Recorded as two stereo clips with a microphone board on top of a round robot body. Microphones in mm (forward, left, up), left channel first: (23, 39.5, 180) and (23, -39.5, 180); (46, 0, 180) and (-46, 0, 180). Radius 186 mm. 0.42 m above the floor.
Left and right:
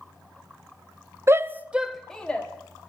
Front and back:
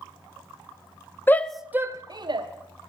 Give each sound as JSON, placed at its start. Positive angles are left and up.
{"t": 1.3, "sound": "a shout", "azimuth_deg": -55, "distance_m": 0.9}